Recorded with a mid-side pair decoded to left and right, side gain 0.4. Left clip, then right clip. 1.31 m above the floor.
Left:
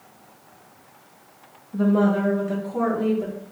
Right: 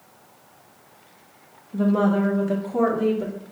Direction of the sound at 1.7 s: Straight ahead.